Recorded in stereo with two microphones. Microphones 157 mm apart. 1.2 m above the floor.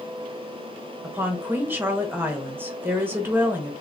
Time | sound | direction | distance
1.0 | a woman speaking | 15° right (ahead or behind) | 1.1 m